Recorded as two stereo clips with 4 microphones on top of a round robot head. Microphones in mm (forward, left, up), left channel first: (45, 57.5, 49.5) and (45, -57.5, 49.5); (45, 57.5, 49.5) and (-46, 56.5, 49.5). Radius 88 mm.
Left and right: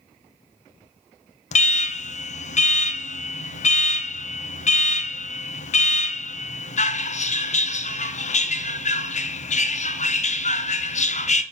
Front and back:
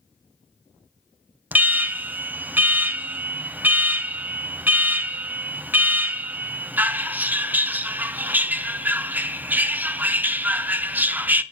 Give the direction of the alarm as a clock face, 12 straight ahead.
8 o'clock.